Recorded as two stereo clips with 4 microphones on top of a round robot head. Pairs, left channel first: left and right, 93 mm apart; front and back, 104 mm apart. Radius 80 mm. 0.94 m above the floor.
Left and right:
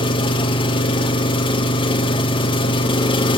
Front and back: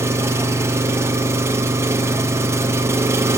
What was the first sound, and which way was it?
An engine running, 115° left.